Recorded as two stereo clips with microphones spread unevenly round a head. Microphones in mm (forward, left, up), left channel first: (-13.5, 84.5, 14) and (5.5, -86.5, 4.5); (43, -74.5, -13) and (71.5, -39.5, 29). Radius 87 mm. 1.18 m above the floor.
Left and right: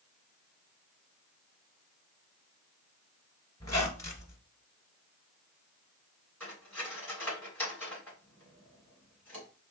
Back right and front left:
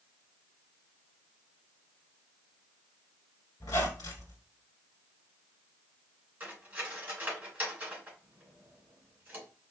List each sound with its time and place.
3.6 s a squeak: 155° left, 1.4 m
6.4 s cutlery clinking: 15° left, 3 m